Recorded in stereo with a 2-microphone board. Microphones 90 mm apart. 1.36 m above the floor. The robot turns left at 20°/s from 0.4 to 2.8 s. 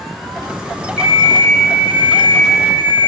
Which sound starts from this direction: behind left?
An alarm clock, at 1.0 s.